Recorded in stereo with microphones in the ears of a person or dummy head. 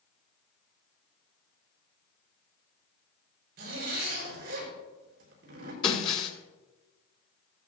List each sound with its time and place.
3.6 s a zipper: 55° right (ahead or behind), 5.5 m
5.8 s breaking glass: 30° left (ahead or behind), 2 m